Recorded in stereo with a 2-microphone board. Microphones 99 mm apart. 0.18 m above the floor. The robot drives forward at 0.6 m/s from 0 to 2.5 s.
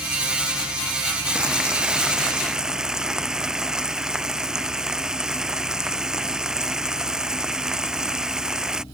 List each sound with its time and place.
1.4 s frying: 10° right (ahead or behind); by 8.8 s 5° right (ahead or behind)